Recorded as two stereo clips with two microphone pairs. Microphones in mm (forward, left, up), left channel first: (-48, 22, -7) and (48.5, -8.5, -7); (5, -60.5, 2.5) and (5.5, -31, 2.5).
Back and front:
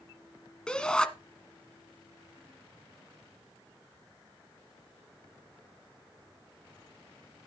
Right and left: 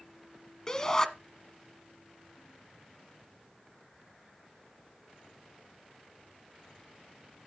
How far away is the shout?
About 1.1 m.